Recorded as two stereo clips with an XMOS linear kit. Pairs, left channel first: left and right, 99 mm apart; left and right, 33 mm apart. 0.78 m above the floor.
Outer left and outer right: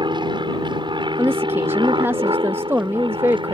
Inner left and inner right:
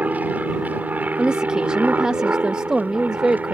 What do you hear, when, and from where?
0.0 s an aircraft: 50° right (ahead or behind); by 3.5 s 55° right (ahead or behind)
1.2 s a woman speaking: 20° right (ahead or behind)